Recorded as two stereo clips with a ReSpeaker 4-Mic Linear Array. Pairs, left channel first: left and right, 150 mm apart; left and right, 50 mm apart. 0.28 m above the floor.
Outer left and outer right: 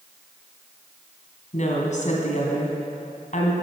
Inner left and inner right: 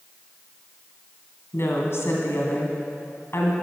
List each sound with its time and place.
1.5 s a woman speaking: 55° left (ahead or behind), 2.5 m